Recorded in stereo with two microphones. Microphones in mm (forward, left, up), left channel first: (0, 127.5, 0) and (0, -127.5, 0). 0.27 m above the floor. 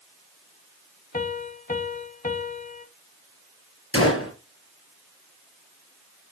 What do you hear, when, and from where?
1.1 s a piano: 30° left (ahead or behind), 0.7 m
3.9 s a gunshot: 60° left (ahead or behind), 3 m